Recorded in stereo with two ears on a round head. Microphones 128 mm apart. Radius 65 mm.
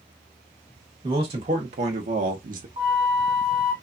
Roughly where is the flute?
Right.